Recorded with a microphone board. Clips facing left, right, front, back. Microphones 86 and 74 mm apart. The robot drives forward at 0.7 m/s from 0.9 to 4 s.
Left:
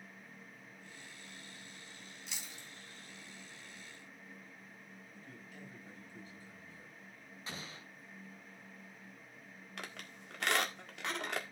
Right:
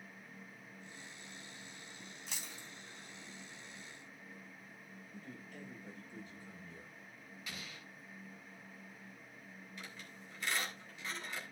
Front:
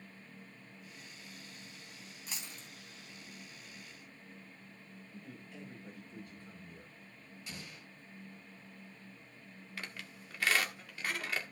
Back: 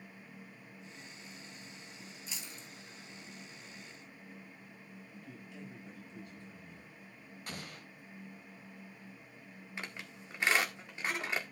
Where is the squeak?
110° left, 1.6 m.